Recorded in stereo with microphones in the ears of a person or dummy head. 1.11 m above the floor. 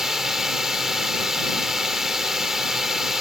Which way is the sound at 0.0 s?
Centre (ahead or behind).